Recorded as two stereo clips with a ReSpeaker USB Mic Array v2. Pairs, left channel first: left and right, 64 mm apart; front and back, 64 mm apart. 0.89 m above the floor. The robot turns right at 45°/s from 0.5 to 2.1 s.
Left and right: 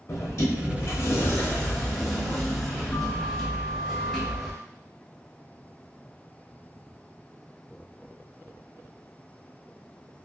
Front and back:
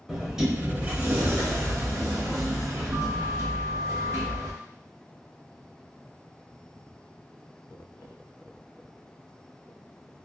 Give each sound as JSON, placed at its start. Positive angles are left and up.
{"t": 0.1, "sound": "a sliding door", "azimuth_deg": 100, "distance_m": 0.9}